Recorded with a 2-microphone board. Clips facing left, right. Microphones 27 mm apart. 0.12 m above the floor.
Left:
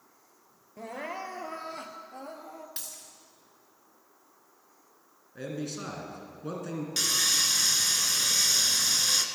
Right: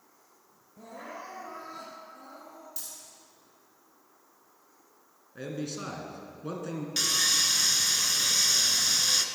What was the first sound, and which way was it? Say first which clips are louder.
Crying: left 5 dB; 65° left (ahead or behind).